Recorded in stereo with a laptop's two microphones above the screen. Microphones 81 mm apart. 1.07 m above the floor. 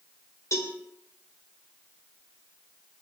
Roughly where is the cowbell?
Left.